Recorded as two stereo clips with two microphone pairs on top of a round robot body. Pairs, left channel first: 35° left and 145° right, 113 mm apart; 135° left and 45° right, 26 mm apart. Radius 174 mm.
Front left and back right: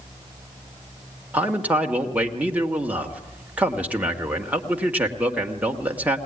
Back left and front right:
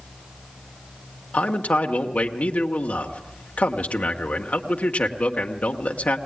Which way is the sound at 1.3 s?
135° left.